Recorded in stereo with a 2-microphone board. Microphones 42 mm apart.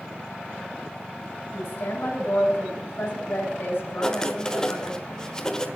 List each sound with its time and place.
1.5 s a woman speaking: 60° left (ahead or behind), 6.5 m
4.0 s writing: 15° left (ahead or behind), 1.1 m